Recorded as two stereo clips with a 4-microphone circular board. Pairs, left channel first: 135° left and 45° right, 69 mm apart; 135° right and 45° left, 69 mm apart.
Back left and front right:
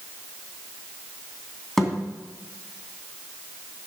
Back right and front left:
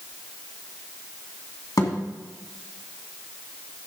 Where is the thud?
140° right, 2.5 m.